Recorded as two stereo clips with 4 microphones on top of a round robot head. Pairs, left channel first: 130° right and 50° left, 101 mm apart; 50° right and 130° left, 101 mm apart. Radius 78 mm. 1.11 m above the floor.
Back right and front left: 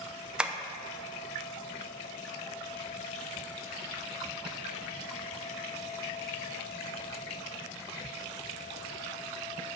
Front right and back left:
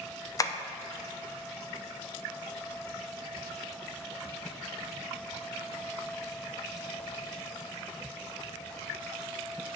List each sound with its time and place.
0.4 s tapping: 25° right, 0.8 m